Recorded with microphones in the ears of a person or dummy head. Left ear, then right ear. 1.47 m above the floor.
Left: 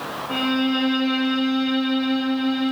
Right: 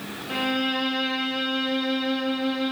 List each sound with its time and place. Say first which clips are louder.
0.3 s a violin: left 2 dB; 15° right (ahead or behind), 0.6 m